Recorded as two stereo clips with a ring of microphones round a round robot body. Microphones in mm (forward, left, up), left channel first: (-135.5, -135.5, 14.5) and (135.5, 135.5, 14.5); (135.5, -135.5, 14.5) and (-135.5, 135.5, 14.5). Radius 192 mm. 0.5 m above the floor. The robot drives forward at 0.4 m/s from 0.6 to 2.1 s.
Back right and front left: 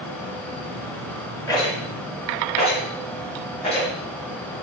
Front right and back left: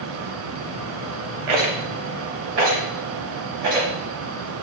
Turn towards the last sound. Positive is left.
turn(degrees=150)